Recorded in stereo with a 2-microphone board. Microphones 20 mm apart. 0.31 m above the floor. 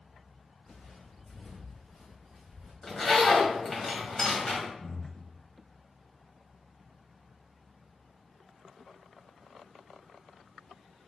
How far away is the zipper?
About 1.4 m.